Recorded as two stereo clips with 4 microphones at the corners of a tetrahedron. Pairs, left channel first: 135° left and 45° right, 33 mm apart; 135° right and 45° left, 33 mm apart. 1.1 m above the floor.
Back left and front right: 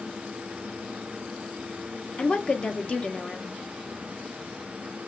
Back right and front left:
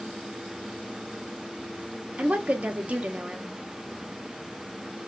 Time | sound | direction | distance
2.2 | a woman speaking | 85° left | 0.7 m